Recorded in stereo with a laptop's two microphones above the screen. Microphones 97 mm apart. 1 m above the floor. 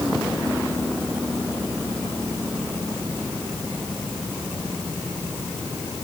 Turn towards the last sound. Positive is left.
No sound to turn to.